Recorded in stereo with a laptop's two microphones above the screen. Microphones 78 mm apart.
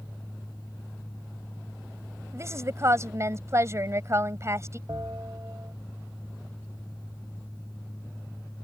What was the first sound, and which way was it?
A fan, 20° left (ahead or behind).